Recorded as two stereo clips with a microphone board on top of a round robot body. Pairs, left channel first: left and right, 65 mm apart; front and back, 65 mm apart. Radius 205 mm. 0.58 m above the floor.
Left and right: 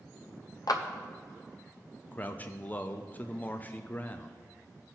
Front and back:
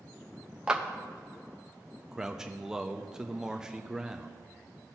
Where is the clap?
100° left, 0.9 m.